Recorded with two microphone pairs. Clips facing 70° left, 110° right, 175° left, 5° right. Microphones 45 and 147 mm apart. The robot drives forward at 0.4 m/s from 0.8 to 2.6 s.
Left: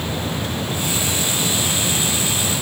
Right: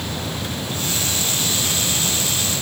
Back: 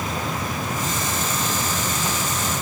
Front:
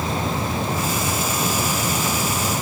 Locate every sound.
Only background noise.